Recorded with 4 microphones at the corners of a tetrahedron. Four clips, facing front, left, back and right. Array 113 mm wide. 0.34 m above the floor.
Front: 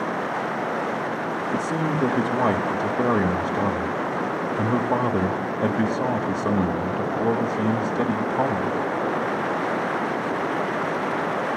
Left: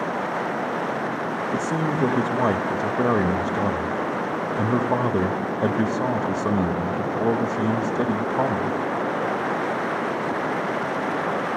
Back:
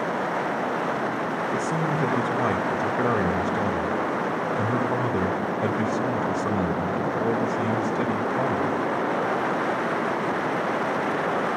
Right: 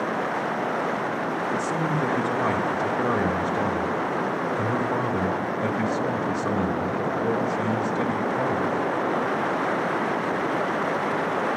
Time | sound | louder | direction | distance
1.5 | a man speaking | left 1 dB, front 2 dB | 60° left | 1.2 m